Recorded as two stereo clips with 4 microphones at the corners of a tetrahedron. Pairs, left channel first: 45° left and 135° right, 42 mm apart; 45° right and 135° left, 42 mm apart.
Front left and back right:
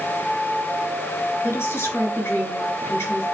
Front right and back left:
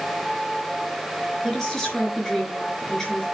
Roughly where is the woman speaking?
Ahead left.